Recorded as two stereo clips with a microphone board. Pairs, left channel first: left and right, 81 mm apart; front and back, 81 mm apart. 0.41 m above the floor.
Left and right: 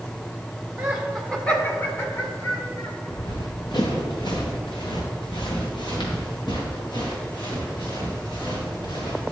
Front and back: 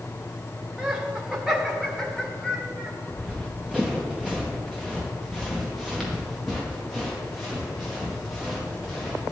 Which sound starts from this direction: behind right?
Laughter, at 0.8 s.